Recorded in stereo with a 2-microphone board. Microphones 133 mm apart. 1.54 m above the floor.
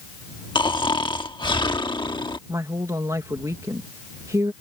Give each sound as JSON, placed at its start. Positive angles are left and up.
{"t": 0.6, "sound": "snoring", "side_deg": 35}
{"t": 2.5, "sound": "a woman speaking", "side_deg": -25}